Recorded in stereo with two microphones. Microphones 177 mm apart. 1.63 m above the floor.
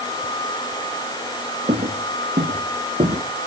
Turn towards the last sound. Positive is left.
turn(degrees=-35)  # may be behind; listen again after turning